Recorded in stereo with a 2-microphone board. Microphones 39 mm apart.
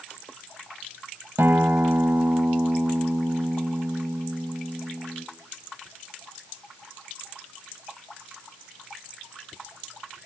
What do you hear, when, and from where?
1.4 s a guitar: 70° right (ahead or behind), 1.5 m